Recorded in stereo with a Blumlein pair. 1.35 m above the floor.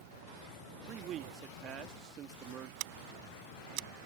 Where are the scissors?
45° right.